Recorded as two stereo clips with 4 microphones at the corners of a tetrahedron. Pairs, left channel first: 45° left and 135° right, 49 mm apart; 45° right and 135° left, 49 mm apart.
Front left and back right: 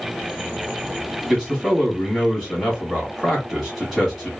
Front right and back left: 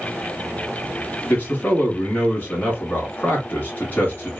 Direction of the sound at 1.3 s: 45° right.